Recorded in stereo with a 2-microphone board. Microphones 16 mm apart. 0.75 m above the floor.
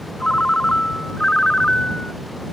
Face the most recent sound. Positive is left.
turn(degrees=65)  # may be behind; listen again after turning